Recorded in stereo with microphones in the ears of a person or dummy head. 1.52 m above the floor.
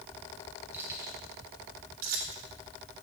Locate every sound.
0.7 s keys jangling: 15° right (ahead or behind), 2.5 m; by 2.4 s 70° right (ahead or behind), 2 m